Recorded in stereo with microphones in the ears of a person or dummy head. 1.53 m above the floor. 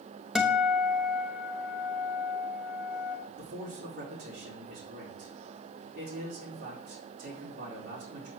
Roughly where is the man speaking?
Right.